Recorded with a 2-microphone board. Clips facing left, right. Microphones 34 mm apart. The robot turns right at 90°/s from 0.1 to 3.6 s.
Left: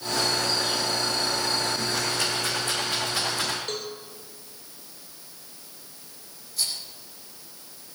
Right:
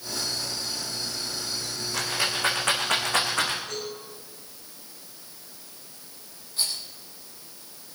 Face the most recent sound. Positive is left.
turn(degrees=-30)  # may be behind; listen again after turning